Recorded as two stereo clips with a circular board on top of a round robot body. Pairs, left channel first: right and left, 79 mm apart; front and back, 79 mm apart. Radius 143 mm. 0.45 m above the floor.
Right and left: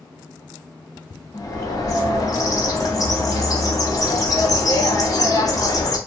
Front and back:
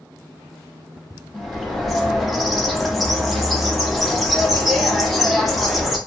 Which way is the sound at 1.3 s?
90° right.